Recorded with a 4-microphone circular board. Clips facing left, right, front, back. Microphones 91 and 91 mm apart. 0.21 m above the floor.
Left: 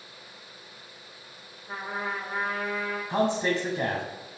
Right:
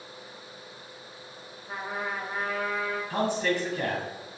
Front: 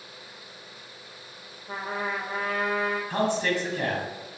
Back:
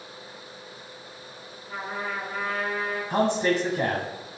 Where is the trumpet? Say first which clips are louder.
Even, front 1 dB; 5° right, 3.5 m.